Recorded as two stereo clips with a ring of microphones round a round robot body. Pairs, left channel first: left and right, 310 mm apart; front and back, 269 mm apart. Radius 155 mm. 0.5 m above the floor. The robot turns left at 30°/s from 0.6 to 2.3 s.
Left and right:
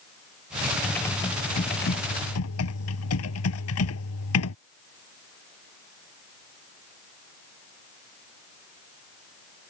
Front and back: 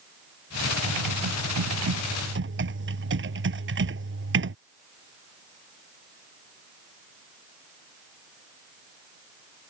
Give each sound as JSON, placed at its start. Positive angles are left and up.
{"t": 0.8, "sound": "typing on a keyboard", "azimuth_deg": 180}